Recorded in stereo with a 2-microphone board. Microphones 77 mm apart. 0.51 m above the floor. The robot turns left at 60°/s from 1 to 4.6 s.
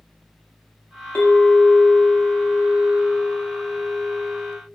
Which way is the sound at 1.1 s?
135° left.